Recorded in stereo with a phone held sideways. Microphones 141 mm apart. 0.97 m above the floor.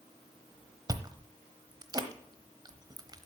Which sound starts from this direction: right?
Chewing, at 0.9 s.